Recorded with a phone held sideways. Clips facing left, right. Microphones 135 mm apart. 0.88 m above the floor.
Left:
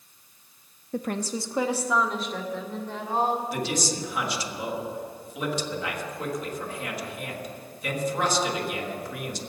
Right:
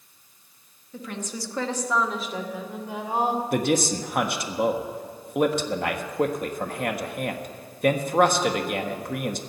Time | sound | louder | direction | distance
0.9 | a woman speaking | left 5 dB | 55° left (ahead or behind) | 0.9 m
3.5 | a man speaking | right 6 dB | 55° right (ahead or behind) | 1.4 m